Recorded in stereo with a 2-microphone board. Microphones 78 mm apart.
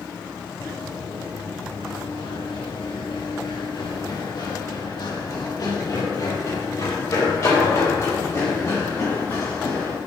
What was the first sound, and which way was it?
Running footsteps, 80° left.